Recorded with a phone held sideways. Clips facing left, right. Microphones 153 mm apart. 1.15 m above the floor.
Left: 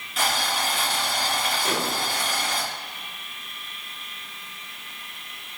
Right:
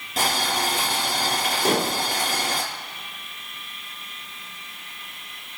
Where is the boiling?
35° right (ahead or behind), 4 m.